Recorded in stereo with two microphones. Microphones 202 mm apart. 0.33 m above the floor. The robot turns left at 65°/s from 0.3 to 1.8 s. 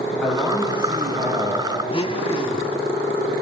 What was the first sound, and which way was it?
A man speaking, 5° left.